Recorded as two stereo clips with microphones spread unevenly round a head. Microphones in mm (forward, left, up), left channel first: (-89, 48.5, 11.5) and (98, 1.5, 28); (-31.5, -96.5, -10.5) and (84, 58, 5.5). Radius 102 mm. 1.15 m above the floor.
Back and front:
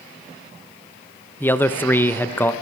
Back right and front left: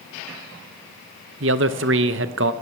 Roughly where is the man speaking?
Left.